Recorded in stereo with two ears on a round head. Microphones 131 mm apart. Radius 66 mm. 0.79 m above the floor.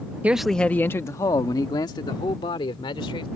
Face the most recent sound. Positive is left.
turn(degrees=35)  # may be behind; listen again after turning